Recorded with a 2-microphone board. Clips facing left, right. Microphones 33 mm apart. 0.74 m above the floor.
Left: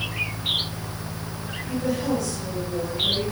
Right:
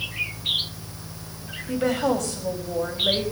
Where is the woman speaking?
75° right (ahead or behind), 4.5 m.